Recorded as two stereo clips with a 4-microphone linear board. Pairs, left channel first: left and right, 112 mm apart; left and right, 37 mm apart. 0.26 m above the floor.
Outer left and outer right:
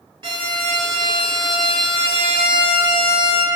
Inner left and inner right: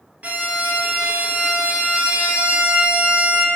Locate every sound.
0.2 s a violin: 45° right (ahead or behind), 0.7 m